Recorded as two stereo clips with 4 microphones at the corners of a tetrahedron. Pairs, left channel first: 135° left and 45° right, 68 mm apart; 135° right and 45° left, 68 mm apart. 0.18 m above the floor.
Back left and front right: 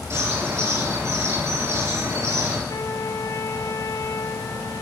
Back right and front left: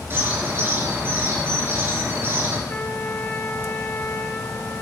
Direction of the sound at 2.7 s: 160° left.